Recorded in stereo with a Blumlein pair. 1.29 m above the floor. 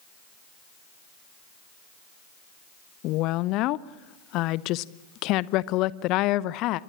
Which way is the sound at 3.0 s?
40° left.